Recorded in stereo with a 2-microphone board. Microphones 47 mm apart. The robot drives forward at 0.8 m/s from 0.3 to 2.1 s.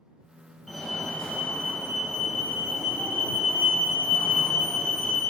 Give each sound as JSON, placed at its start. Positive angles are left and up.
{"t": 0.7, "sound": "a fire alarm", "side_deg": 10, "distance_m": 1.6}